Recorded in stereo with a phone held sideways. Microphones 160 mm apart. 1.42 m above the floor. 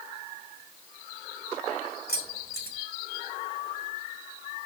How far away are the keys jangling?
About 4.5 m.